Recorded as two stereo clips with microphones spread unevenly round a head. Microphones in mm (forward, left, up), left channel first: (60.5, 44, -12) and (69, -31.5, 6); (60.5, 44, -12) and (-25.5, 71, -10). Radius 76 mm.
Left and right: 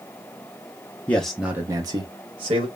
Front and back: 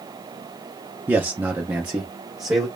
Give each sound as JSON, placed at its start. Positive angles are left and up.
{"t": 1.1, "sound": "a man speaking", "azimuth_deg": 110, "distance_m": 0.5}